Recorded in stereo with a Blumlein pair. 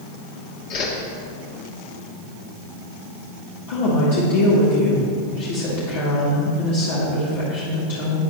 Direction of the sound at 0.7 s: 40° left.